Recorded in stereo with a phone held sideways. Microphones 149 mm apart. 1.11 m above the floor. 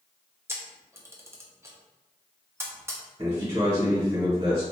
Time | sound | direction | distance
0.5 | a camera shutter | 15° right (ahead or behind) | 0.5 m
3.2 | a man speaking | 40° right (ahead or behind) | 1.1 m